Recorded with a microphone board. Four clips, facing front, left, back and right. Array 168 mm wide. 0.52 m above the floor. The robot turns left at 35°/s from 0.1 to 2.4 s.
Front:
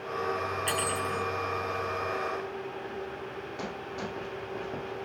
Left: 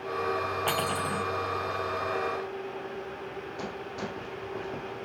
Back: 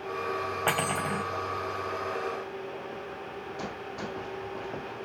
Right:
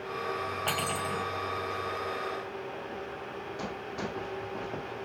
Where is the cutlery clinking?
170° left, 1.8 m; by 1.2 s 150° left, 1.8 m.